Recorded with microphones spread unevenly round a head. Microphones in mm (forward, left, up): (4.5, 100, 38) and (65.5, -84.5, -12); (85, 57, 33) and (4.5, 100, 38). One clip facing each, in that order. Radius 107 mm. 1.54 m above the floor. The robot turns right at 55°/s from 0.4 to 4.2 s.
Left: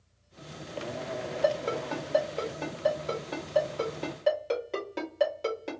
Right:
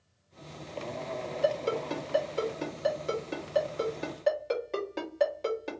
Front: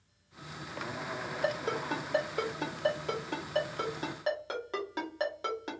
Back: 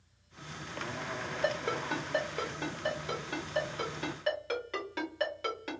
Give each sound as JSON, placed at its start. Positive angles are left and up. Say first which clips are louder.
{"t": 1.4, "sound": "a ringtone", "louder": "even, even", "azimuth_deg": -120, "distance_m": 1.3}